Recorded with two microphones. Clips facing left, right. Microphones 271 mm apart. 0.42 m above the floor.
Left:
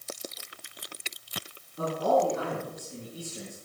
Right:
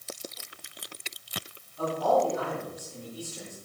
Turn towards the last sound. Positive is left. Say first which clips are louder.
# even
turn(degrees=65)  # may be behind; listen again after turning